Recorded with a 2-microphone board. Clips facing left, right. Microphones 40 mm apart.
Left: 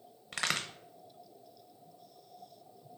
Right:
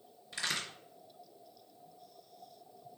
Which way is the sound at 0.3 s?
70° left (ahead or behind).